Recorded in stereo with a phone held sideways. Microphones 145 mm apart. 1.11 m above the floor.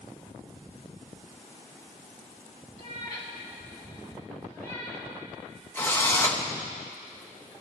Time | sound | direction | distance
2.8 | a cat meowing | 55° right (ahead or behind) | 3 m
5.8 | a drill | 15° left (ahead or behind) | 1.0 m